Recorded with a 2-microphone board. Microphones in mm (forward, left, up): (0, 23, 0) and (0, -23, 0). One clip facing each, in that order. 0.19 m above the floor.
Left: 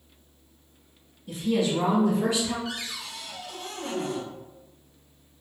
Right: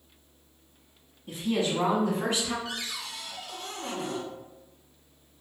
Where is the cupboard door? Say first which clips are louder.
Left 1 dB; centre (ahead or behind), 0.8 m.